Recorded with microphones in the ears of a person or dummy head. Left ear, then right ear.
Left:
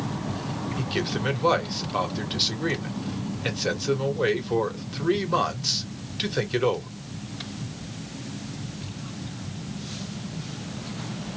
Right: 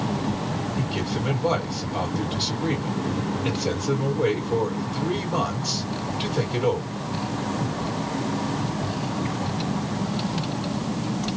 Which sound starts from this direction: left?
A man speaking, at 0.8 s.